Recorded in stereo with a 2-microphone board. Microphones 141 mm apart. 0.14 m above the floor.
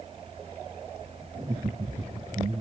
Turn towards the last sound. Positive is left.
turn(degrees=-50)  # may be behind; listen again after turning